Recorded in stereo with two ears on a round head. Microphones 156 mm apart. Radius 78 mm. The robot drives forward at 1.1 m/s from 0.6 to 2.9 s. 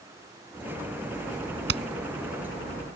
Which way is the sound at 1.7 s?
70° right (ahead or behind).